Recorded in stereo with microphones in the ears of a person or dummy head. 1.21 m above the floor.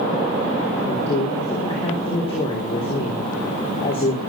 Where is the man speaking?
30° left (ahead or behind), 3.5 m.